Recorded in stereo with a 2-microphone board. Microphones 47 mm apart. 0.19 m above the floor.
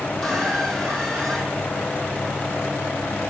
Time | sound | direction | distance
0.2 | a squeak | 15° left (ahead or behind) | 2.5 m